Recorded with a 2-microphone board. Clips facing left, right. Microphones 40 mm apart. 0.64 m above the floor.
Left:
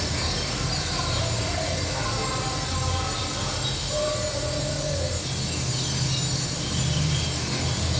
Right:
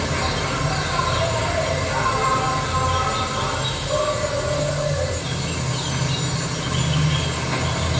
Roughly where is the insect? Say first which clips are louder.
Right 6 dB; right.